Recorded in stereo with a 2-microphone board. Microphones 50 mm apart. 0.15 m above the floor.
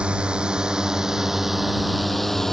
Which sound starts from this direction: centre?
A drone, at 0.0 s.